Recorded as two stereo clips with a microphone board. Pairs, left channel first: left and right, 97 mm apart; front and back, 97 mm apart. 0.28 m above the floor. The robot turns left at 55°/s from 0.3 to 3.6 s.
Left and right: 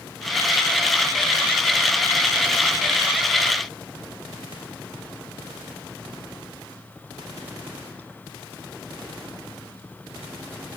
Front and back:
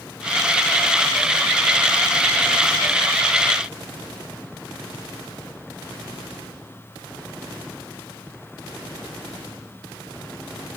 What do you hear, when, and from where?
Only background noise.